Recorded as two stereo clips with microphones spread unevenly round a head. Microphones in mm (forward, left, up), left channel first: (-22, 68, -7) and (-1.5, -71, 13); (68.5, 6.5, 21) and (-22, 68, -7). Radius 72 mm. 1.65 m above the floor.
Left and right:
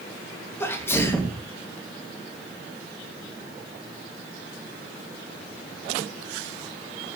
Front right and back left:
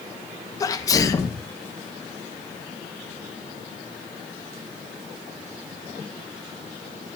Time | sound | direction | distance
0.6 | a sneeze | 20° left | 2.5 m